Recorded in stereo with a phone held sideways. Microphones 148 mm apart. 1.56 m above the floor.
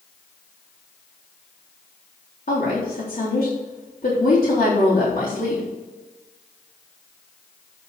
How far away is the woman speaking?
About 3.5 m.